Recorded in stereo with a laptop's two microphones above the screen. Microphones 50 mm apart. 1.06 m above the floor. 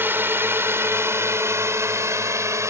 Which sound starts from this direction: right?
A drone, at 0.0 s.